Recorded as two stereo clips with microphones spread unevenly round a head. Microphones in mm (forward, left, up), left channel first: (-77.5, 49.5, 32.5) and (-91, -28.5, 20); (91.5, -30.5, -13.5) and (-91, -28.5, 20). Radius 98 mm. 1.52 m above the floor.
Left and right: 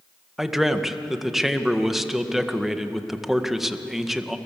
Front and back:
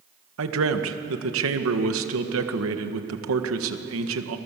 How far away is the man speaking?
About 1.8 m.